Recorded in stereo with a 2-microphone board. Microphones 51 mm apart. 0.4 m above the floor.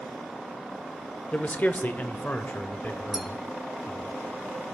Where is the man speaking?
30° left (ahead or behind), 0.9 m; by 4.1 s 40° left (ahead or behind), 2 m.